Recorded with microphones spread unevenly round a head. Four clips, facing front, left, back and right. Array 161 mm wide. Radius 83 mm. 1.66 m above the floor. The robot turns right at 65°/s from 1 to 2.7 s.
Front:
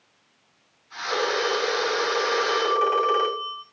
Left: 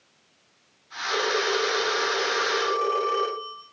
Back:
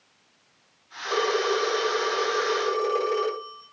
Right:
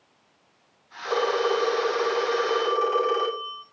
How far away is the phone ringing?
About 8.5 m.